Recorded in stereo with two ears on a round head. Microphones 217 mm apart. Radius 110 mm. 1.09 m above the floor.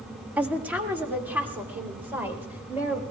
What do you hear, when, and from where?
0.4 s a woman speaking: 5° right (ahead or behind), 1.8 m; by 3.0 s 10° right (ahead or behind), 5 m